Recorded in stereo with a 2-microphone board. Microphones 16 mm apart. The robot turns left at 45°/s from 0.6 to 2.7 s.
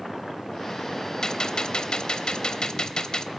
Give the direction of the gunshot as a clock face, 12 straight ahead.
8 o'clock.